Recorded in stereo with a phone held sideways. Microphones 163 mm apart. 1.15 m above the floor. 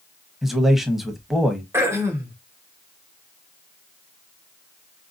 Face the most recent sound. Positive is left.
turn(degrees=-15)  # may be behind; listen again after turning